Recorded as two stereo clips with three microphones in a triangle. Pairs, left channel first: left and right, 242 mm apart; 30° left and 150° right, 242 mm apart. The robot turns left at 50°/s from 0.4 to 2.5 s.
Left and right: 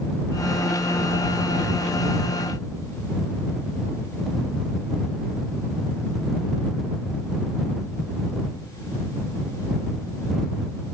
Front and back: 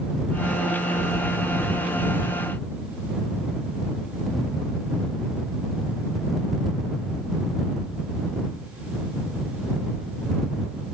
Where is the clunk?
No clunk in this recording.